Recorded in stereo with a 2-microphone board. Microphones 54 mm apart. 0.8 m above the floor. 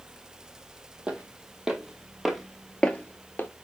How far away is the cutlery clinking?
No cutlery clinking in this recording.